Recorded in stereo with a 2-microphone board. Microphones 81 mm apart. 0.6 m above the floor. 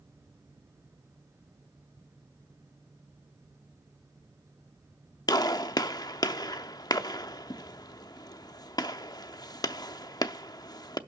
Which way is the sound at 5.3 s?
50° left (ahead or behind).